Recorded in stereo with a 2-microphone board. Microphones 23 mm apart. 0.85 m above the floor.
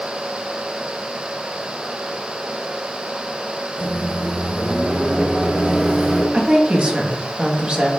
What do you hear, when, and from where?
3.8 s a microwave: 70° right (ahead or behind), 1.4 m
6.3 s a woman speaking: 50° right (ahead or behind), 0.8 m